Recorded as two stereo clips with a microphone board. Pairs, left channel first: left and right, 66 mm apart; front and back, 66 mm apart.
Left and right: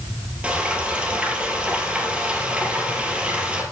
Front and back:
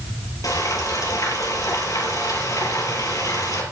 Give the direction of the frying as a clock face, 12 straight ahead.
1 o'clock.